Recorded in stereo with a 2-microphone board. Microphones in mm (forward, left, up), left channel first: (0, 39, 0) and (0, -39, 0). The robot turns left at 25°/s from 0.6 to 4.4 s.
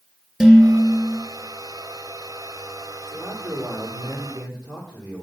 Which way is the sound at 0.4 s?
Centre (ahead or behind).